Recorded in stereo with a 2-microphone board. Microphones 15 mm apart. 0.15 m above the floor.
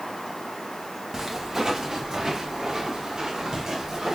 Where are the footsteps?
15° right (ahead or behind), 2.5 m; by 4.2 s 35° right (ahead or behind), 4.5 m.